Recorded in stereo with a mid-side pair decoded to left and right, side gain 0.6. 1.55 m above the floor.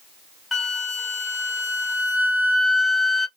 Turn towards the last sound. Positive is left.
turn(degrees=25)